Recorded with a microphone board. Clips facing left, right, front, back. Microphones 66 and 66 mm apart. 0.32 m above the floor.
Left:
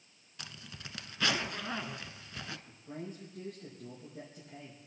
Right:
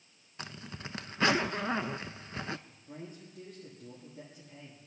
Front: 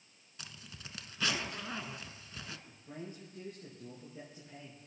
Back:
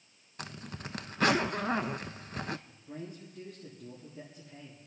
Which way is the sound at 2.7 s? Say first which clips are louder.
Left 3 dB, back 3 dB; 50° left.